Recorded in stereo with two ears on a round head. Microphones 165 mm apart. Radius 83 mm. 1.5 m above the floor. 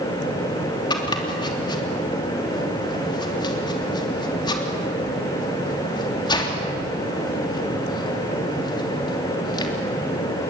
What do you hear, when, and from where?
0.9 s chopping: 25° left (ahead or behind), 3 m